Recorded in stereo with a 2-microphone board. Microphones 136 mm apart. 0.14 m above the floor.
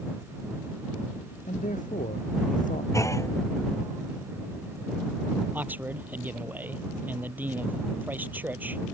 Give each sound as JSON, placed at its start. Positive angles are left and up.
{"t": 1.5, "sound": "a man speaking", "side_deg": 70}
{"t": 2.9, "sound": "a clunk", "side_deg": 20}
{"t": 5.5, "sound": "a man speaking", "side_deg": -15}